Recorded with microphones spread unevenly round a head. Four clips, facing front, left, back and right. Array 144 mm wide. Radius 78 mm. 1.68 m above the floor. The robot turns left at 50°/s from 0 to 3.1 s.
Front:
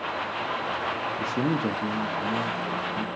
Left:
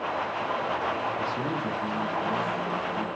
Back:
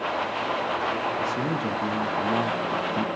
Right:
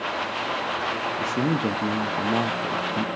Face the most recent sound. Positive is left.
turn(degrees=-130)